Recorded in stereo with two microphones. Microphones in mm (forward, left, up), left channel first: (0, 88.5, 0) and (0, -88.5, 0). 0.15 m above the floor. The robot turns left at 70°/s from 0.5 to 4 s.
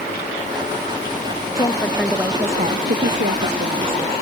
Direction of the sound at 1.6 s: 35° left.